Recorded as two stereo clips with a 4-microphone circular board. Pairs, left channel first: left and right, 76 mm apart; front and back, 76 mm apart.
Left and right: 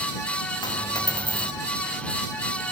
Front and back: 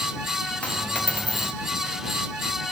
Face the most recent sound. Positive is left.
turn(degrees=75)